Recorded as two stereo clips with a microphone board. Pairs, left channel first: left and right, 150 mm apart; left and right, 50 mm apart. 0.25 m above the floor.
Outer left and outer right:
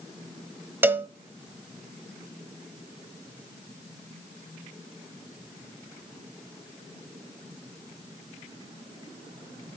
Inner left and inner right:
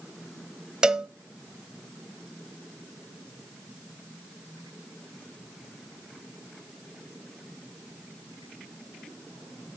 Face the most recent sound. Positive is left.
turn(degrees=-15)  # may be behind; listen again after turning